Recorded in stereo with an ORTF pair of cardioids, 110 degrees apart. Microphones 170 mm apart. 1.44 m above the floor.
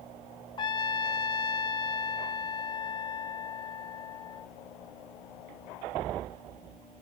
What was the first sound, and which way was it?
A trumpet, 30° left.